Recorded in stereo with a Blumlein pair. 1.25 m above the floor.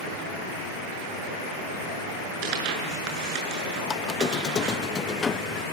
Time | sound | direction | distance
2.4 | tearing paper | 45° right | 6.5 m
3.9 | a squeak | 20° left | 0.9 m